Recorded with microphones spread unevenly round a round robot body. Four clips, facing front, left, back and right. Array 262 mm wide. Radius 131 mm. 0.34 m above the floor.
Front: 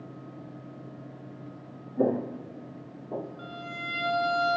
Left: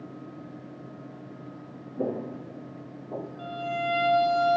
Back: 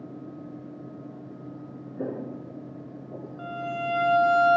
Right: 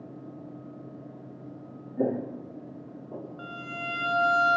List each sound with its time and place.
2.0 s footsteps: 15° right, 1.3 m; by 3.3 s 15° left, 2 m
3.4 s a violin: 85° right, 1.7 m